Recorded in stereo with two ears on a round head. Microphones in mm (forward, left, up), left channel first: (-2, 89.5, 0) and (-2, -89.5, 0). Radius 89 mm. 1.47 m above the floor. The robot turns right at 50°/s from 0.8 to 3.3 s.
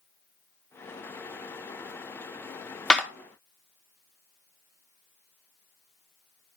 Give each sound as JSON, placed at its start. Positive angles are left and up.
{"t": 2.9, "sound": "a clap", "side_deg": 5, "distance_m": 0.9}